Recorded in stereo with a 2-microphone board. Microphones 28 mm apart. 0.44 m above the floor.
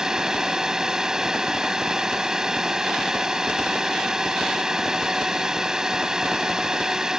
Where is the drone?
25° right (ahead or behind).